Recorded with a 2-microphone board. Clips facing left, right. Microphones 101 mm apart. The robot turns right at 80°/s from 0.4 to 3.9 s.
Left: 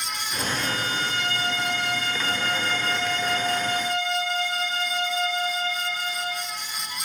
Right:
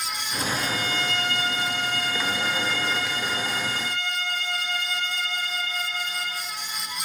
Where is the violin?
95° right, 6 m; by 6.5 s 170° left, 6 m.